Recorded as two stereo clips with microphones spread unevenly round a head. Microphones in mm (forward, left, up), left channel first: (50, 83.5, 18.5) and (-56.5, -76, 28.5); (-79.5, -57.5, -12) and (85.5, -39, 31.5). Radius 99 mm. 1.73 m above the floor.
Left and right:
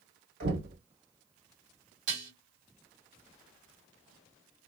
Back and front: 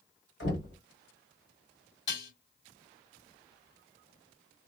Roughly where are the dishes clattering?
Behind.